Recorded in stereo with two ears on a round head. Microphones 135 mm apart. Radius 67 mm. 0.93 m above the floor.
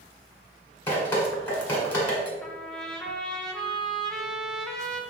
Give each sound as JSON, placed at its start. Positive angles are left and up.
{"t": 0.9, "sound": "dripping", "side_deg": 15, "distance_m": 1.5}
{"t": 2.4, "sound": "a trumpet", "side_deg": 5, "distance_m": 0.6}